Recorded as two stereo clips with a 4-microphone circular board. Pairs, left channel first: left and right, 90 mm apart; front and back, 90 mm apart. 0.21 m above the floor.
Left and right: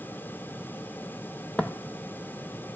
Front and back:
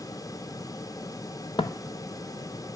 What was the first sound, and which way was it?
Footsteps, 10° left.